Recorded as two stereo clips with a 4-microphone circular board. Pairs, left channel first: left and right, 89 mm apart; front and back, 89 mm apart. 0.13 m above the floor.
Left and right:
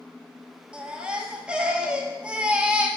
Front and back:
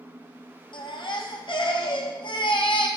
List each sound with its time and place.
0.7 s a baby crying: 10° right, 0.9 m